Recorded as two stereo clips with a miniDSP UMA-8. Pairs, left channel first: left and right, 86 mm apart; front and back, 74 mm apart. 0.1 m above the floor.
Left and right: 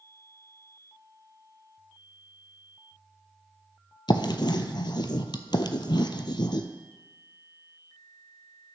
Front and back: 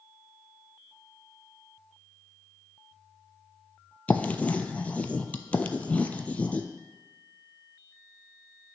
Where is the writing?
70° left, 0.6 m.